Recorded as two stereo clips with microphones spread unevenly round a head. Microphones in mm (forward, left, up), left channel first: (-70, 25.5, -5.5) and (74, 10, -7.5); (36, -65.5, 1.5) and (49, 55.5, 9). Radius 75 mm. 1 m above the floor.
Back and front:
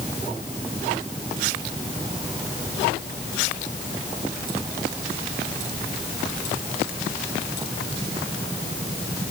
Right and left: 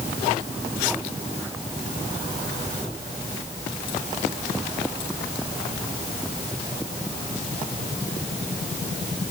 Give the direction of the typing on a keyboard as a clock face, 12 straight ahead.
I don't hear typing on a keyboard.